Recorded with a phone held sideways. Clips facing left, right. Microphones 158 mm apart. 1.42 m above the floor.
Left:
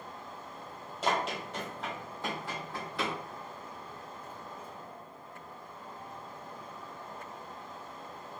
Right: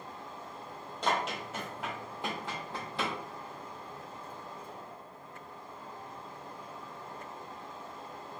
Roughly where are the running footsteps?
Centre.